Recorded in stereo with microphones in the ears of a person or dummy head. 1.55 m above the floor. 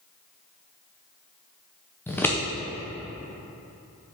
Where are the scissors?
10° left (ahead or behind), 0.7 m.